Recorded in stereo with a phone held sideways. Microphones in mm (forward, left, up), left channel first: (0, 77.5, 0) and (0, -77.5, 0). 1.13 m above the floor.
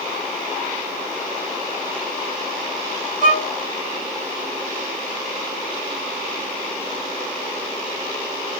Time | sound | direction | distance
3.2 | a violin | 15° left (ahead or behind) | 2.5 m